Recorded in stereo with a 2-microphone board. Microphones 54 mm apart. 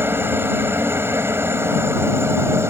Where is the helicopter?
40° right (ahead or behind); by 2.7 s 50° right (ahead or behind).